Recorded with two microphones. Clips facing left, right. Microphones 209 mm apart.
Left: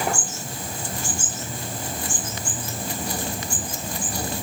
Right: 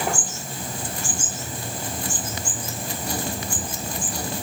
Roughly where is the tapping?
No tapping in this recording.